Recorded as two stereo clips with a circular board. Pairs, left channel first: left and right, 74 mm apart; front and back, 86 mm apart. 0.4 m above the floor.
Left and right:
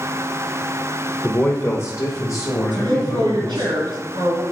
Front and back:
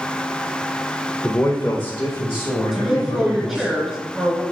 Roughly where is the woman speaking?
Right.